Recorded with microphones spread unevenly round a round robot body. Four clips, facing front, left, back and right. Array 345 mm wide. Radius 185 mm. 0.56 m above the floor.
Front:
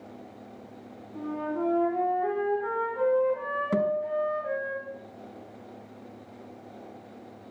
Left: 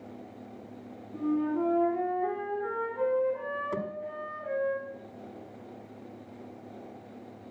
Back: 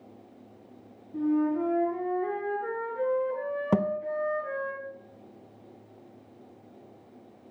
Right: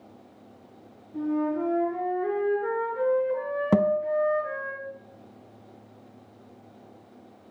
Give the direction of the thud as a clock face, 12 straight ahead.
3 o'clock.